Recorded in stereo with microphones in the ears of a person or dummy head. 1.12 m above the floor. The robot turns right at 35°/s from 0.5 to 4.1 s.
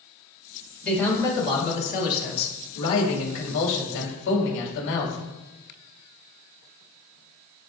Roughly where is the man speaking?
Ahead.